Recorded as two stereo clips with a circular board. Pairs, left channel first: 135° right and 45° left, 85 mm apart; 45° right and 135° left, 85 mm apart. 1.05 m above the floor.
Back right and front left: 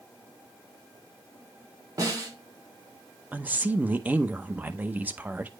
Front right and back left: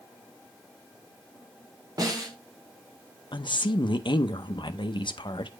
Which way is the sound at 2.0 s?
90° left.